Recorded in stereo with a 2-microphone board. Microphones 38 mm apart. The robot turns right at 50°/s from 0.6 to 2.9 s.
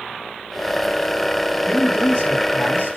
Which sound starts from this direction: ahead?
A man speaking, at 1.7 s.